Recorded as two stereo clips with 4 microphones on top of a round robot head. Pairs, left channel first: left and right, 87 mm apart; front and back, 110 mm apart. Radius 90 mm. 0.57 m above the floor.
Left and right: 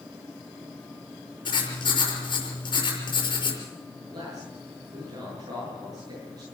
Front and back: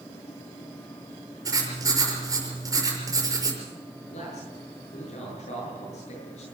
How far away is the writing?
About 5.5 m.